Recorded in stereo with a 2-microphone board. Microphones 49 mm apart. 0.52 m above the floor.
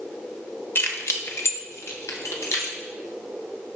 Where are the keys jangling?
55° left (ahead or behind), 1.4 m; by 2.8 s 70° left (ahead or behind), 3.5 m.